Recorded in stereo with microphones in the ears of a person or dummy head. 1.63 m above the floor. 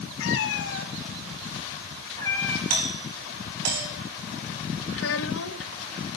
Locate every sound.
0.2 s a cat meowing: 70° left (ahead or behind), 3.5 m; by 2.6 s 5° left (ahead or behind), 3 m
2.7 s a doorbell: 85° right, 9 m
4.9 s a child speaking: 70° left (ahead or behind), 1.8 m